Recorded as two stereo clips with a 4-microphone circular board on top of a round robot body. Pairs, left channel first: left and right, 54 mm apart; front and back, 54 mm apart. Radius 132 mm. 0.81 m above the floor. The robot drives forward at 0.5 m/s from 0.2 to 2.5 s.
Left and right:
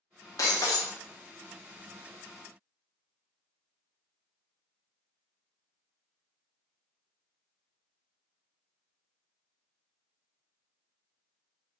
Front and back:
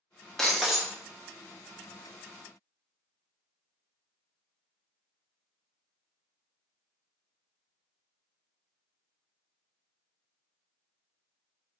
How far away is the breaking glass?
About 0.7 m.